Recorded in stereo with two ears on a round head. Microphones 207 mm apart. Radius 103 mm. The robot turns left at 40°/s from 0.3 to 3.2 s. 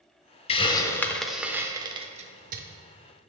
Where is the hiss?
25° left (ahead or behind), 0.6 m; by 2.6 s 40° right (ahead or behind), 0.6 m.